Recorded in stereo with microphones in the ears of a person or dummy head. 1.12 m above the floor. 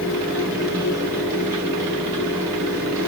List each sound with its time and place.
0.0 s a fan: 20° right (ahead or behind), 5 m